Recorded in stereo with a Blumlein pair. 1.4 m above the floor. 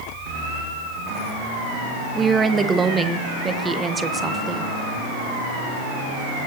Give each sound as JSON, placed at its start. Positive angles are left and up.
{"t": 2.1, "sound": "a woman speaking", "azimuth_deg": -15, "distance_m": 1.1}